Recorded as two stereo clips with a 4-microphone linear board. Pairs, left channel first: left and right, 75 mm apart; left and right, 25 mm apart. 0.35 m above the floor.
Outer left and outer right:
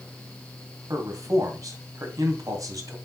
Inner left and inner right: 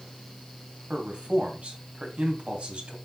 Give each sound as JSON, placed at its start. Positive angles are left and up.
{"t": 0.9, "sound": "a man speaking", "side_deg": -50, "distance_m": 2.5}